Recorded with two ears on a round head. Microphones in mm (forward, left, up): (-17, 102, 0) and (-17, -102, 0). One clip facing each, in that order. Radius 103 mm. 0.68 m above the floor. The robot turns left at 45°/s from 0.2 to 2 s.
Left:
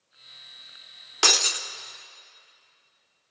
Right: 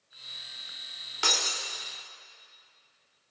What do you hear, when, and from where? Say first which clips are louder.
1.2 s breaking glass: left 6 dB; 65° left (ahead or behind), 0.7 m; by 1.6 s 85° left, 0.7 m